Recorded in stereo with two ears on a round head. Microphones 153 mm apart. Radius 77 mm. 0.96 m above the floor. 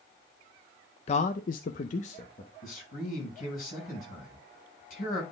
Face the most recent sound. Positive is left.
turn(degrees=50)  # may be behind; listen again after turning